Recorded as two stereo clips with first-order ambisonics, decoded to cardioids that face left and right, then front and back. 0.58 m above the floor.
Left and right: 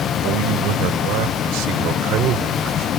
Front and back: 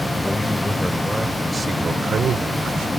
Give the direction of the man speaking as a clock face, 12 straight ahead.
3 o'clock.